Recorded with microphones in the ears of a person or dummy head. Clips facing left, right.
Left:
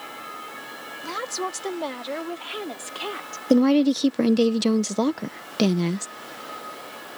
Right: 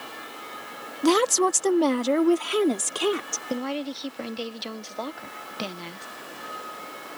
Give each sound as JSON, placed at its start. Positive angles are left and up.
{"t": 1.0, "sound": "a woman speaking", "side_deg": -80}
{"t": 3.5, "sound": "a woman speaking", "side_deg": 60}